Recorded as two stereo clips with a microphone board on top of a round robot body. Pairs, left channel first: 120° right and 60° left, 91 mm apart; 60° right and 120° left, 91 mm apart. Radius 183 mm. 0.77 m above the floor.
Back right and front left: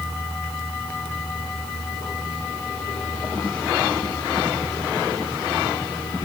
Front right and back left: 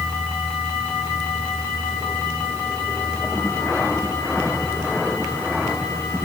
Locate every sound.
Only background noise.